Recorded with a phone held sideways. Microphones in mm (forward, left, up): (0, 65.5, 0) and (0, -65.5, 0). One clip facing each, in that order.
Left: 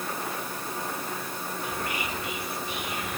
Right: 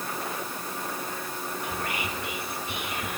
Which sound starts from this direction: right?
Whispering, at 1.6 s.